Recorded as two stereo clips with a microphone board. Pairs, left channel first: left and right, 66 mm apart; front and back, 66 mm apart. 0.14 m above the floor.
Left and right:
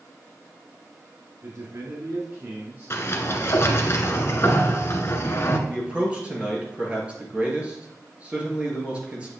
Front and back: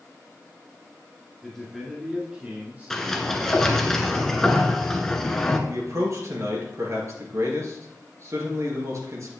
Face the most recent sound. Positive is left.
turn(degrees=-155)